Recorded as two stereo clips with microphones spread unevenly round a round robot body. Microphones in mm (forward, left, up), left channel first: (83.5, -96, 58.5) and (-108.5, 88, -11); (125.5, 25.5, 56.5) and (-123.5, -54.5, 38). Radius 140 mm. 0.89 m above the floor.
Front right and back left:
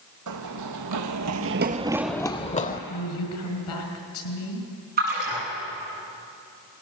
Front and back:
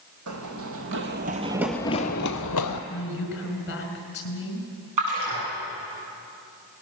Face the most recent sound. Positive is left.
turn(degrees=-165)